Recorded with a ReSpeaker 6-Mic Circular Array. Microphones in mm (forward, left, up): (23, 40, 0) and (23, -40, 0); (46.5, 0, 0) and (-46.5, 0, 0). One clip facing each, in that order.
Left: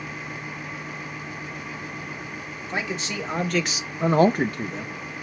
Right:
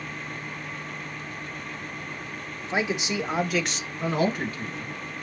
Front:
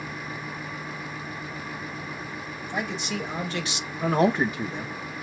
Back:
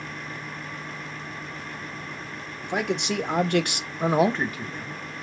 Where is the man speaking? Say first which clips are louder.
Right 3 dB, back 5 dB; 160° right, 1.5 m; by 5.0 s 50° left, 1.0 m.